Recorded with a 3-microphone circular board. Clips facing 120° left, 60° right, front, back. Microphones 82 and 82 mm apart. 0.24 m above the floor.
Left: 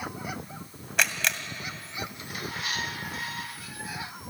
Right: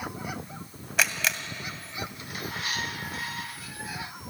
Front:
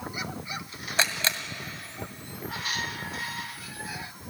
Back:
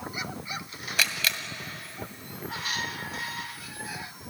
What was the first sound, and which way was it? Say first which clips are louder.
A camera shutter: even, front 2 dB; 25° left.